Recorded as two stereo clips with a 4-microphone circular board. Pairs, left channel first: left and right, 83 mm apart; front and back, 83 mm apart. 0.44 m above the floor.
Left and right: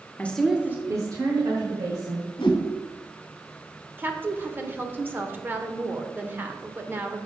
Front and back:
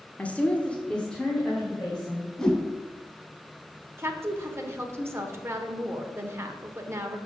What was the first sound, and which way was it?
A woman speaking, 50° left.